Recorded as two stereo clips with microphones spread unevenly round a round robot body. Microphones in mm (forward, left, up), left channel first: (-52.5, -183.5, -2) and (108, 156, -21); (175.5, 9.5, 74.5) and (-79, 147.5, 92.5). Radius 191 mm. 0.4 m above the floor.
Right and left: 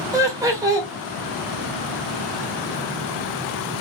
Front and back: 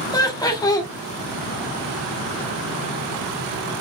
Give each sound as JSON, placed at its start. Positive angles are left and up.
{"t": 0.1, "sound": "laughter", "azimuth_deg": 10, "distance_m": 1.1}